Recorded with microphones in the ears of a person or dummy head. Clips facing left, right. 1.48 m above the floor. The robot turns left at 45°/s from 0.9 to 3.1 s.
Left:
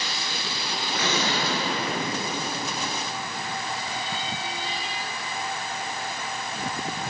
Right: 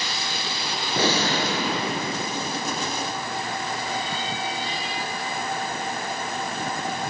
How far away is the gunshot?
About 4 m.